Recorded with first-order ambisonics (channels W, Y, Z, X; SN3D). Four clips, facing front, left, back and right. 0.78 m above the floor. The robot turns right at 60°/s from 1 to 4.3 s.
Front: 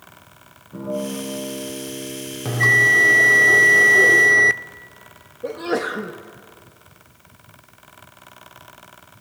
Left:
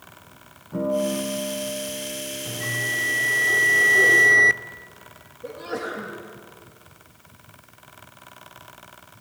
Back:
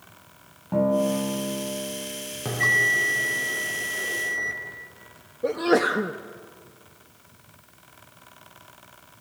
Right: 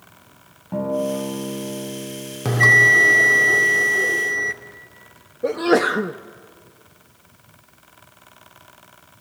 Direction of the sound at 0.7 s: 145° right.